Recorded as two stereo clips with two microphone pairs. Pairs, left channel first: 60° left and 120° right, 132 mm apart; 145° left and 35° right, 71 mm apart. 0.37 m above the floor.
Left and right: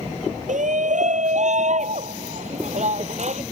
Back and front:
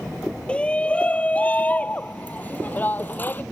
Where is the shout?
140° right; by 3.4 s 150° right.